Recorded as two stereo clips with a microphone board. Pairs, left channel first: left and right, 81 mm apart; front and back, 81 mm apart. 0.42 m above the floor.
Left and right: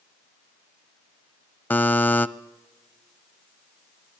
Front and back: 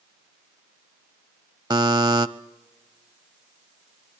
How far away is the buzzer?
About 0.7 m.